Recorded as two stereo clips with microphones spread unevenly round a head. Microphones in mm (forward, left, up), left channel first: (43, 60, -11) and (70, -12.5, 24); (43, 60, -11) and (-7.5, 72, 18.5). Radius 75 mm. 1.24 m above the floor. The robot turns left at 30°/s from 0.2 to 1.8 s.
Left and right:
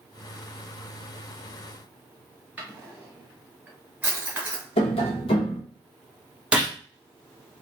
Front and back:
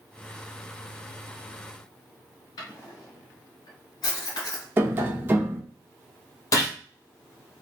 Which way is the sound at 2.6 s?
25° right.